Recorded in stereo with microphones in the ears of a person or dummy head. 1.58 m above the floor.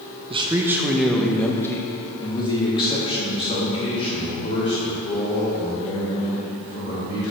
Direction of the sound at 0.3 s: 25° right (ahead or behind).